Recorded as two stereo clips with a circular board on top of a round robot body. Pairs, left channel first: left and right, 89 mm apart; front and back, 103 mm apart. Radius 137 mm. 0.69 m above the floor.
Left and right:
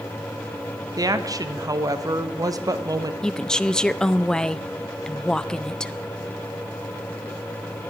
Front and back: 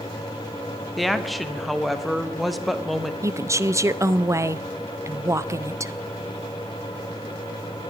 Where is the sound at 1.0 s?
90° right, 1.2 m.